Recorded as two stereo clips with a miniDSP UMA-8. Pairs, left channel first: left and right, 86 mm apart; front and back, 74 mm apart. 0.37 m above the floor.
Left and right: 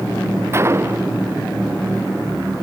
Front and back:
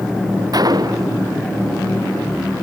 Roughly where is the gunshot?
Behind right.